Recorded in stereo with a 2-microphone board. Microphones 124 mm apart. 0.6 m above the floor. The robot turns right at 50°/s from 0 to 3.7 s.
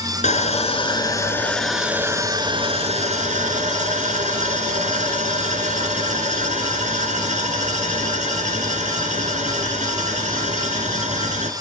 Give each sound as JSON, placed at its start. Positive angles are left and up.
{"t": 0.2, "sound": "sawing", "azimuth_deg": 105, "distance_m": 2.5}